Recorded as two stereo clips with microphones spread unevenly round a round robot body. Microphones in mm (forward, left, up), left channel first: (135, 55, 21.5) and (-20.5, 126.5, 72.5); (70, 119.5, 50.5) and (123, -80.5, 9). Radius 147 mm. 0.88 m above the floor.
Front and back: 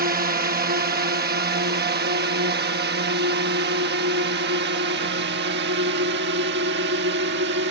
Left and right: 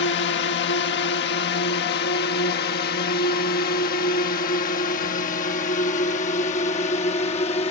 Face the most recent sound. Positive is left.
turn(degrees=175)